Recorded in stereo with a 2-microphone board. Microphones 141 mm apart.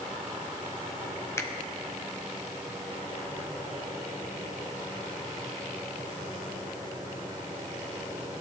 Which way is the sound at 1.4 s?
20° left (ahead or behind).